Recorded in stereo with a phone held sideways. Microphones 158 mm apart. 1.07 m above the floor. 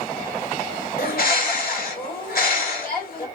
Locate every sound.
1.0 s a bird: 75° left (ahead or behind), 2.5 m